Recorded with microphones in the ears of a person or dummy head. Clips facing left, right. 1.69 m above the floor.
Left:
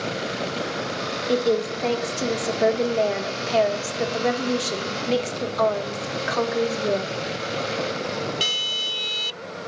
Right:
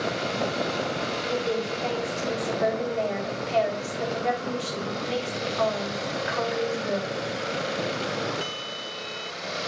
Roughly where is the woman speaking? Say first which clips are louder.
Left 8 dB; left.